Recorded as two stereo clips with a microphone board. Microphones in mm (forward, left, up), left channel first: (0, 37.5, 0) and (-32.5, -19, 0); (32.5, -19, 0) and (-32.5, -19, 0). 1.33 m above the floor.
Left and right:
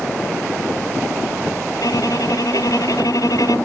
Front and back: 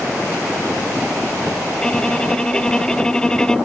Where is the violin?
80° left.